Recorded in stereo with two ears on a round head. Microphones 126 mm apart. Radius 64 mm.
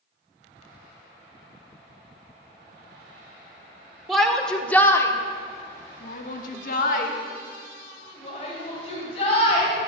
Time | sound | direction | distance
4.1 | a shout | centre (ahead or behind) | 1.9 m